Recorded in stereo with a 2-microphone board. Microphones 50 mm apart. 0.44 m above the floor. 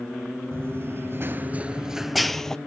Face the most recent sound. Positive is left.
turn(degrees=10)  # may be behind; listen again after turning